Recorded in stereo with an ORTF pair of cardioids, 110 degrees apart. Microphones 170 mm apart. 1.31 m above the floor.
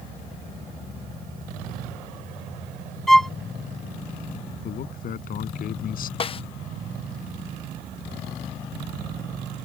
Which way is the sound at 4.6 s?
60° left.